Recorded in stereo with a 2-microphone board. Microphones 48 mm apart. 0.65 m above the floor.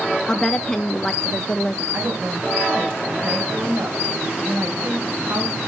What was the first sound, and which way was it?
A woman speaking, 15° left (ahead or behind).